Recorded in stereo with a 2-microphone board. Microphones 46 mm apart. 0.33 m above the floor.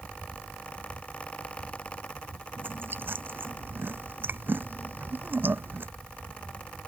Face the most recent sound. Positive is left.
turn(degrees=-45)  # may be behind; listen again after turning